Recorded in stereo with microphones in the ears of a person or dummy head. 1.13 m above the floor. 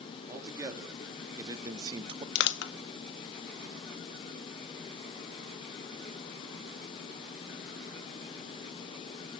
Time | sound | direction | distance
0.3 | a man speaking | 15° right (ahead or behind) | 2.5 m
2.4 | crushing | 55° left (ahead or behind) | 0.8 m